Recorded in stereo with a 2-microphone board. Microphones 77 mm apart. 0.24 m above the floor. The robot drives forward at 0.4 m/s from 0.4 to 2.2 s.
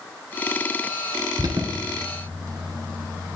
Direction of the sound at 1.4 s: 65° right (ahead or behind).